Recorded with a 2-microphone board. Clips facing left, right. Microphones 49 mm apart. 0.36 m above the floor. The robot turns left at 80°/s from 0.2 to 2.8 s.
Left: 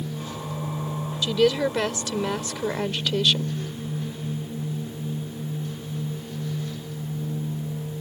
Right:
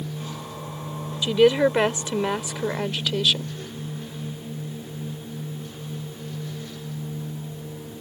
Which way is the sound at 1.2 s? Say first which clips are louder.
Right 4 dB; 15° right (ahead or behind).